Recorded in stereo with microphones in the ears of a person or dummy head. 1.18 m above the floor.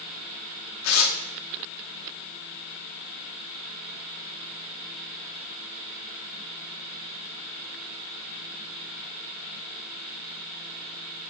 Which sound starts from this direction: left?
Tearing paper, at 0.8 s.